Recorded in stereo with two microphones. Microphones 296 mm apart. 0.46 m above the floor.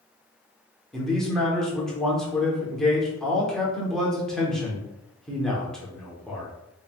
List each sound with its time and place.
0.9 s a man speaking: centre (ahead or behind), 0.8 m